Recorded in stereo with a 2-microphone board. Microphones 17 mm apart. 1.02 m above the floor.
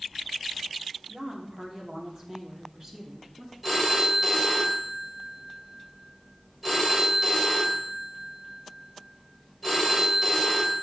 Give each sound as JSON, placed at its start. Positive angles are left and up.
{"t": 1.1, "sound": "a woman speaking", "side_deg": -45, "distance_m": 3.0}
{"t": 3.6, "sound": "a phone ringing", "side_deg": -5, "distance_m": 3.0}